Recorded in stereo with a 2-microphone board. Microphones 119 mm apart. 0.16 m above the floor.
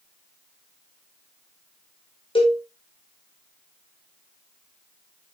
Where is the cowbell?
45° left (ahead or behind), 4 m.